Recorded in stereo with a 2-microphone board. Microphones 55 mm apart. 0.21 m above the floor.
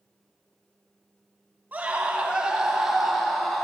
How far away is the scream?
About 1.6 m.